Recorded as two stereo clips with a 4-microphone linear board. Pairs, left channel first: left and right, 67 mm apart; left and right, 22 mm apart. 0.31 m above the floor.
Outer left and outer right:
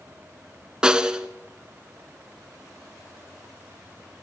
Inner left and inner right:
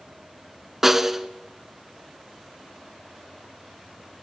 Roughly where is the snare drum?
Centre.